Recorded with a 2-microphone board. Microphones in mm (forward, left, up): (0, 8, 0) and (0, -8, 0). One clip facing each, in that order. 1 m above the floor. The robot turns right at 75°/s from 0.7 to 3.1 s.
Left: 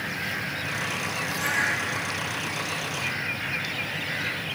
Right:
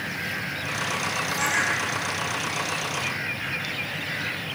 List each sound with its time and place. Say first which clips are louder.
1.4 s a bird: right 1 dB; 55° right, 4.5 m; by 1.8 s 20° right, 4.5 m